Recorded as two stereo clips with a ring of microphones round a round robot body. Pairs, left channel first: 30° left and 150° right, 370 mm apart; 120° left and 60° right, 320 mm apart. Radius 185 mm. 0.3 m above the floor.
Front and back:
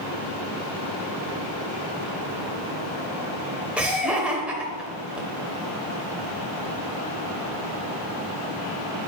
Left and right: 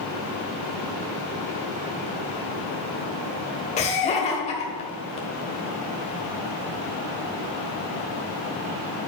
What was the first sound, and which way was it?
Laughter, 130° left.